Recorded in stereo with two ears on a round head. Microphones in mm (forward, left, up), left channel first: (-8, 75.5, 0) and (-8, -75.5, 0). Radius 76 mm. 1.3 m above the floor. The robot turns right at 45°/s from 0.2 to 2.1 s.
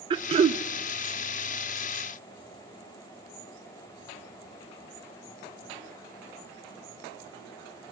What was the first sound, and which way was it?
Throat clearing, 30° right (ahead or behind).